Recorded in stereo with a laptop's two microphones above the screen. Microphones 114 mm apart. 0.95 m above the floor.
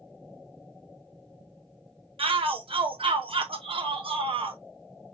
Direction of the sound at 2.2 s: 50° right (ahead or behind).